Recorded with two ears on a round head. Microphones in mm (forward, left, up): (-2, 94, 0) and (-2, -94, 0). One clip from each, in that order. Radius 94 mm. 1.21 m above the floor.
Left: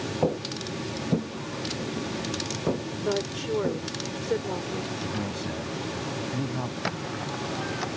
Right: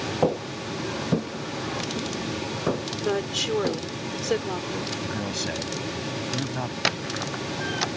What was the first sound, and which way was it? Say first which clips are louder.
Footsteps: right 2 dB; 45° right (ahead or behind).